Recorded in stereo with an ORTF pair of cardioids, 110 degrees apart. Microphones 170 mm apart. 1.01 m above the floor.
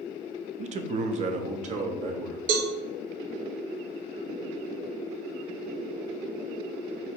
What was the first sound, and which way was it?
A man speaking, 45° right.